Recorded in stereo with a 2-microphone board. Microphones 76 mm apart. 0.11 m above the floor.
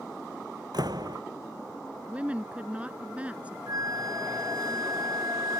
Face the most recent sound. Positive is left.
turn(degrees=-55)  # may be behind; listen again after turning